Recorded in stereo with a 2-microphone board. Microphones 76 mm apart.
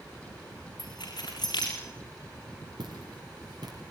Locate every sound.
0.8 s keys jangling: 65° left (ahead or behind), 7.5 m
2.8 s footsteps: 75° right (ahead or behind), 5.5 m; by 3.8 s 60° right (ahead or behind), 5 m